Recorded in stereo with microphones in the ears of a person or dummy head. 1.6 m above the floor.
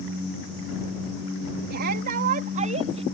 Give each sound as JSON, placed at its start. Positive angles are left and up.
{"t": 1.7, "sound": "a shout", "side_deg": -65}